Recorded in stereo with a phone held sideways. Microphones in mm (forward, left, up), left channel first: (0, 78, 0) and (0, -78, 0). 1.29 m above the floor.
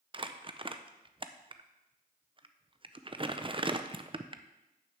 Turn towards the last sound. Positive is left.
turn(degrees=-35)  # may be behind; listen again after turning